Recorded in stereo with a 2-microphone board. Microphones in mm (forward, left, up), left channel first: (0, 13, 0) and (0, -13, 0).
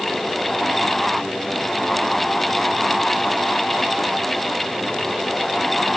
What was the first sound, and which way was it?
Only background noise.